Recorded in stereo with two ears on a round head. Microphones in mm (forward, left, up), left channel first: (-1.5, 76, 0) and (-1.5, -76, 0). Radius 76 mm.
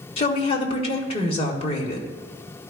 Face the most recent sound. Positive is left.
turn(degrees=35)  # may be behind; listen again after turning